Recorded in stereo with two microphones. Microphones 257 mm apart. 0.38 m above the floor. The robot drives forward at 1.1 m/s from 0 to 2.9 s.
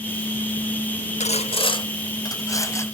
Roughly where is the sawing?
Left.